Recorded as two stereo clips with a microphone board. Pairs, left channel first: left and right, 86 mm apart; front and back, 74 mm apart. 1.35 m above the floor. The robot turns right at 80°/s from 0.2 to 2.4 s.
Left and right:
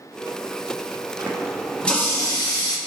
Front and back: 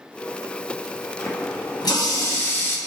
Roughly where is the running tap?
Ahead right.